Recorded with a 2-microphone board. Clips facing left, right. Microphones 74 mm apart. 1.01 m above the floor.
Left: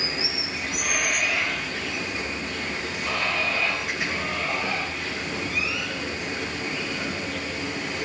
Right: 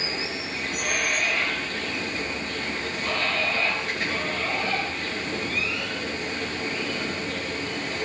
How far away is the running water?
About 5 m.